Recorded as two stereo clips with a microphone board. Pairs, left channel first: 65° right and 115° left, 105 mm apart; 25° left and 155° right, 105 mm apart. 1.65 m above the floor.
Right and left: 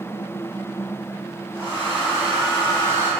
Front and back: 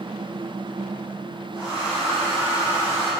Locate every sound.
1.5 s a hair dryer: 125° left, 2.0 m